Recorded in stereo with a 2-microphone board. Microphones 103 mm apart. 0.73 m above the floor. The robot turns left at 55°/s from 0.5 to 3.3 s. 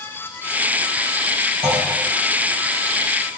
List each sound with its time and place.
1.6 s a clunk: 75° right (ahead or behind), 4 m; by 1.8 s 80° right, 4 m